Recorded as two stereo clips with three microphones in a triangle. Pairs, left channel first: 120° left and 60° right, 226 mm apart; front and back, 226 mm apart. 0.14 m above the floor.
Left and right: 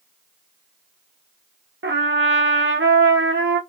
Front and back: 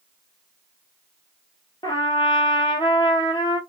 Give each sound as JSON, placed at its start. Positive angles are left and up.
{"t": 1.8, "sound": "a trumpet", "azimuth_deg": -65, "distance_m": 0.7}